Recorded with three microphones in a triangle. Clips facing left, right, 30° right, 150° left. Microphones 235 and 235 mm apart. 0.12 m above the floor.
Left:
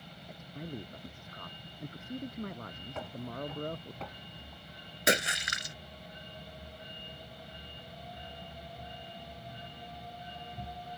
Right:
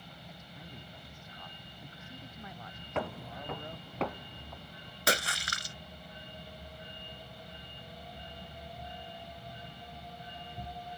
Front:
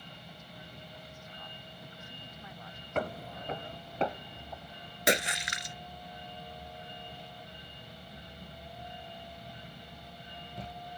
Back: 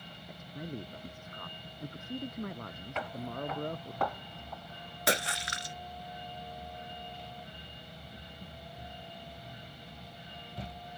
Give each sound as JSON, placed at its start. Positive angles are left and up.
{"t": 0.3, "sound": "a man speaking", "azimuth_deg": 120}
{"t": 3.0, "sound": "footsteps", "azimuth_deg": -75}
{"t": 5.1, "sound": "a splash", "azimuth_deg": 30}